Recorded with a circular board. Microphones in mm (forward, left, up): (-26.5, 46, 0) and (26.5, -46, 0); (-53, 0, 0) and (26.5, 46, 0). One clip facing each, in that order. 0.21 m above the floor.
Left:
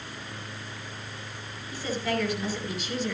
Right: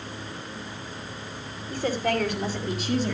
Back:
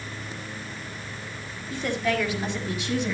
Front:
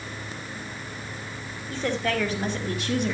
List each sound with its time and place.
1.7 s a woman speaking: 25° right, 4.5 m; by 3.1 s 10° right, 5 m